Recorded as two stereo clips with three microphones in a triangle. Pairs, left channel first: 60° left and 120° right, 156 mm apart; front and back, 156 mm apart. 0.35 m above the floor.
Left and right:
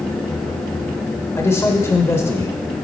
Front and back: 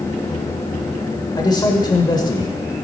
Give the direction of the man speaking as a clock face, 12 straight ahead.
12 o'clock.